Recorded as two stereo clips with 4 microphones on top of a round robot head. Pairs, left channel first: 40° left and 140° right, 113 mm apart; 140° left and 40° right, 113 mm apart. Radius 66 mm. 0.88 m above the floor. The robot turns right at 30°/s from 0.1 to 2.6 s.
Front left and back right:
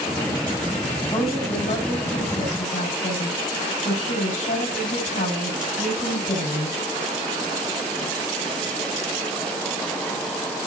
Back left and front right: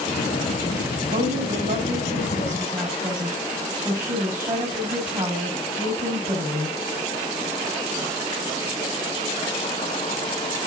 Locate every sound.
1.1 s a woman speaking: 25° right, 5.5 m; by 6.8 s 20° left, 5.5 m